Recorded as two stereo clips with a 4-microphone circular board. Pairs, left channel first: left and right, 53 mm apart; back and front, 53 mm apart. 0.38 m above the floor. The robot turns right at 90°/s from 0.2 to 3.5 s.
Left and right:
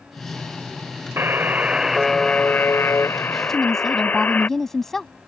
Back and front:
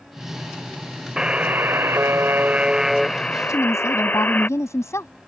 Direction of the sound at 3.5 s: 175° left.